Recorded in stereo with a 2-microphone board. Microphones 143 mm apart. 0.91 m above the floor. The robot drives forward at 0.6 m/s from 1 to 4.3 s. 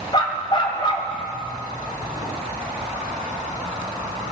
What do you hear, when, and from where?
0.1 s a dog barking: 35° left (ahead or behind), 1.8 m